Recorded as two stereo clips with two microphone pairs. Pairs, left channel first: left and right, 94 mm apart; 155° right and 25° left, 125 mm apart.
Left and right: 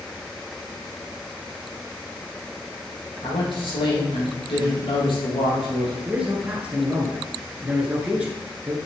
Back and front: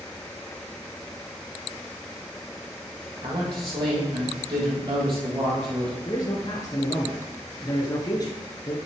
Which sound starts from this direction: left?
A man speaking, at 3.2 s.